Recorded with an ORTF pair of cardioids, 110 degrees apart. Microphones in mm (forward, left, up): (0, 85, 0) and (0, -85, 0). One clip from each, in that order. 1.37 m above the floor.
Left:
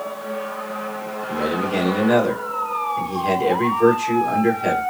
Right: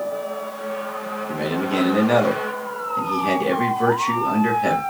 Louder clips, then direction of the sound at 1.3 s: Left 2 dB; 15° right.